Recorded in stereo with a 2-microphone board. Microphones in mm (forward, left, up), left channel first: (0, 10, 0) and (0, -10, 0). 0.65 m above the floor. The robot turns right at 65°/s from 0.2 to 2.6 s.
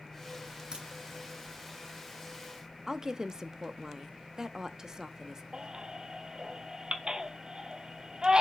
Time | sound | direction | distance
0.7 | a crack | 35° right (ahead or behind) | 3 m
2.9 | a woman speaking | 25° right (ahead or behind) | 0.6 m
5.5 | a baby crying | 40° right (ahead or behind) | 0.9 m